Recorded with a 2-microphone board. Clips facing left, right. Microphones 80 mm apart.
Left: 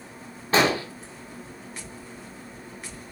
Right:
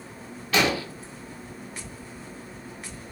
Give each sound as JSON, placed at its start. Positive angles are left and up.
{"t": 0.5, "sound": "an explosion", "side_deg": 35, "distance_m": 0.6}